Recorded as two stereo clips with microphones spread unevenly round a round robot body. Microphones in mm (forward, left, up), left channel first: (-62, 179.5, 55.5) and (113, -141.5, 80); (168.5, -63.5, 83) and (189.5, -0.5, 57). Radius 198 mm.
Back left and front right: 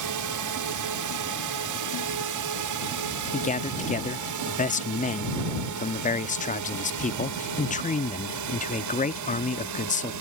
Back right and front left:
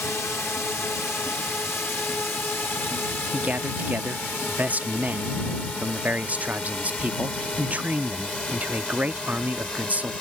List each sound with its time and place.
0.0 s a drone: 50° right; by 10.2 s 25° right
3.3 s a man speaking: 60° left